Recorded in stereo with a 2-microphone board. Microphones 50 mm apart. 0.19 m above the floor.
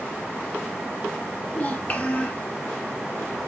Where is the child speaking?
30° left (ahead or behind), 3 m.